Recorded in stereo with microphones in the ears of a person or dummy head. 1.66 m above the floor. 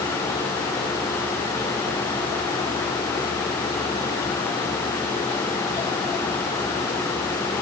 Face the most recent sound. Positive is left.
No sound to turn to.